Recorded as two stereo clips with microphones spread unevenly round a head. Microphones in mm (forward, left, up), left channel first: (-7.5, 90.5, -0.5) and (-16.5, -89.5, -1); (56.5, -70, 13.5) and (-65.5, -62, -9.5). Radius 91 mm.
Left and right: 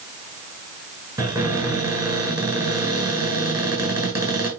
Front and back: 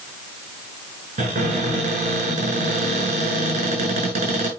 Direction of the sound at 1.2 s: 160° right.